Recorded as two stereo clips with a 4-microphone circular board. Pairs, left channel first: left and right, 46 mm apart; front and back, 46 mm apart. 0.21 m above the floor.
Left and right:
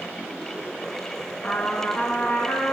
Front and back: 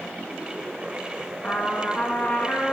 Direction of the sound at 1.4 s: 50° left.